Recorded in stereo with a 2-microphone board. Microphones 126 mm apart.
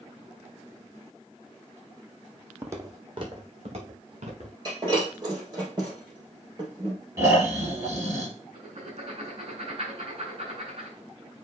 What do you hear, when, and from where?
2.6 s footsteps: 15° right (ahead or behind), 1.1 m; by 4.5 s 60° right (ahead or behind), 3 m
4.7 s breaking glass: 35° right (ahead or behind), 4 m
7.2 s snoring: 25° right (ahead or behind), 2.5 m
8.5 s writing: 50° right (ahead or behind), 3.5 m